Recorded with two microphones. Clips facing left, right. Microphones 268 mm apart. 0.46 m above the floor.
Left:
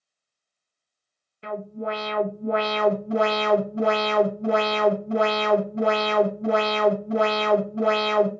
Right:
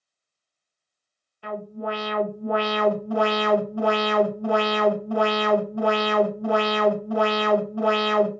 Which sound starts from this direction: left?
An alarm, at 1.4 s.